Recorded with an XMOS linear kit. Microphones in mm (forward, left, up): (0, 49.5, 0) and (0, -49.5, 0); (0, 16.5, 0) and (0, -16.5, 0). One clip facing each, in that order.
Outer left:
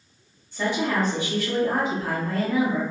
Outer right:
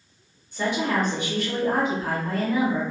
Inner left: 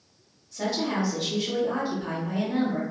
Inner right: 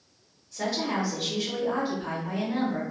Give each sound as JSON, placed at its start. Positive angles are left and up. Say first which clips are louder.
{"t": 0.5, "sound": "a woman speaking", "louder": "even, inner left 1 dB", "side_deg": -15, "distance_m": 1.1}